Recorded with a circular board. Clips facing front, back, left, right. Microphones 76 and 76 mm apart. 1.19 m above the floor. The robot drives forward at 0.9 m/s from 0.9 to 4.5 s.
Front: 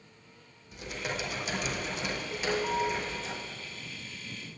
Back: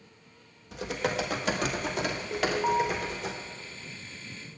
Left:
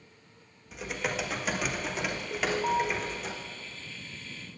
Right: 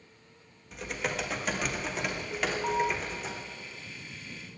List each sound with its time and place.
0.7 s typing on a keyboard: straight behind, 1.6 m
2.3 s an alarm: 165° left, 1.5 m; by 2.9 s 170° left, 1.9 m